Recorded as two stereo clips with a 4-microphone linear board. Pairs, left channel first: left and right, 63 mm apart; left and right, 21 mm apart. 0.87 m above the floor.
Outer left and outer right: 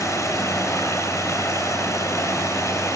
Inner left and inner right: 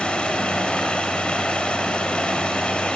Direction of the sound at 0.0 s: 60° left (ahead or behind).